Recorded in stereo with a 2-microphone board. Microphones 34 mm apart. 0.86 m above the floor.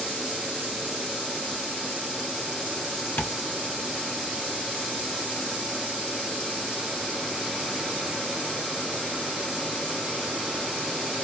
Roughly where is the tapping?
Left.